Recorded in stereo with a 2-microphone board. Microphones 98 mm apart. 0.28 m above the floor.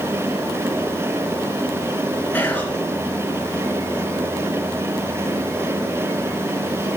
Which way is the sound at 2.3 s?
20° left (ahead or behind).